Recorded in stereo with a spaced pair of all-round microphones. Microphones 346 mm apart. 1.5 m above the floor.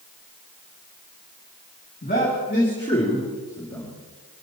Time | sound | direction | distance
2.0 | a man speaking | 30° left (ahead or behind) | 3 m